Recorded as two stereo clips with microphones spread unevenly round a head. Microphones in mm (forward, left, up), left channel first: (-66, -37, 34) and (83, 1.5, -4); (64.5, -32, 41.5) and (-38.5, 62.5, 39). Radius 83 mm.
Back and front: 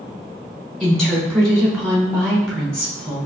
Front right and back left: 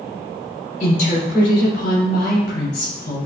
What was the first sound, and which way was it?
A woman speaking, 80° right.